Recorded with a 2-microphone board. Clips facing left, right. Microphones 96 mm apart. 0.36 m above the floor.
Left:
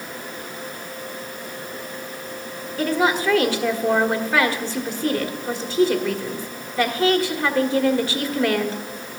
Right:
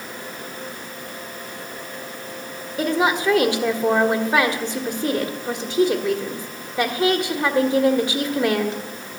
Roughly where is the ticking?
No ticking in this recording.